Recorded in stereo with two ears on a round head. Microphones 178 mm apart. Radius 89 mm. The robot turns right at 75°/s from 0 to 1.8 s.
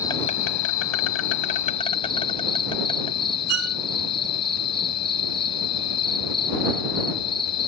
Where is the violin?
55° right (ahead or behind).